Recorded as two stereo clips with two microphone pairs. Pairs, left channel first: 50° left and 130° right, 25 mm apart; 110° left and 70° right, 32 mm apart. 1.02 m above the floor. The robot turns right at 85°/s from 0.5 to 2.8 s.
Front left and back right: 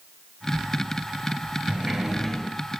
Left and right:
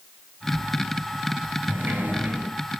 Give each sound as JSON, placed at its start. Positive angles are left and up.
{"t": 1.7, "sound": "a sliding door", "azimuth_deg": -85, "distance_m": 3.5}